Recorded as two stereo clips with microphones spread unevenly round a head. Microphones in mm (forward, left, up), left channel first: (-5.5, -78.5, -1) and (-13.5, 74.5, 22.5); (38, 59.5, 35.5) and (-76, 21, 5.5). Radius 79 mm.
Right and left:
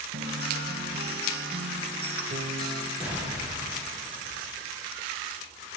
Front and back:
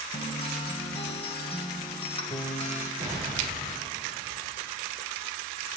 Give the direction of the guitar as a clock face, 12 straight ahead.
10 o'clock.